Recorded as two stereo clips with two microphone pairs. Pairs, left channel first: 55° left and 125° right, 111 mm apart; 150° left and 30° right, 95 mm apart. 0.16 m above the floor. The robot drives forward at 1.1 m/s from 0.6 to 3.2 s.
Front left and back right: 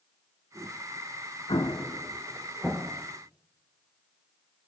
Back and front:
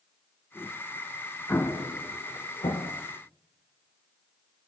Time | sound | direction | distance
1.5 | an explosion | 85° left | 0.8 m